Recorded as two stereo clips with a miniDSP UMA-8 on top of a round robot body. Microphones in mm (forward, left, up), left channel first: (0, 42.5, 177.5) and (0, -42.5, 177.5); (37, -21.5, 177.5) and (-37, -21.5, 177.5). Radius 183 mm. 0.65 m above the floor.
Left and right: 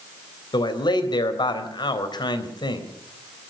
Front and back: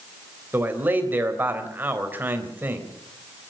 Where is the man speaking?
115° left, 3.5 m.